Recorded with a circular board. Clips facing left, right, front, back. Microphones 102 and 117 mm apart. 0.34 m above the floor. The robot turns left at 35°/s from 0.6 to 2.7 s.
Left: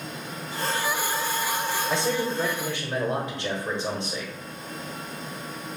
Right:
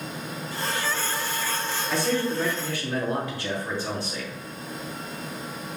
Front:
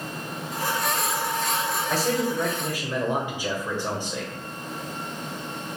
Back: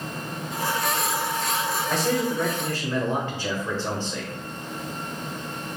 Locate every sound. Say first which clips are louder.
1.9 s a man speaking: right 3 dB, even; 85° left, 1.2 m; by 4.3 s 60° left, 1.2 m